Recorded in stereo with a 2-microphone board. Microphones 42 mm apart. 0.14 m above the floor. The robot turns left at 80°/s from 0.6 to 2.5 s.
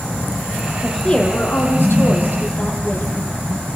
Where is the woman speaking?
Straight behind, 5 m; by 3.2 s 45° left, 5 m.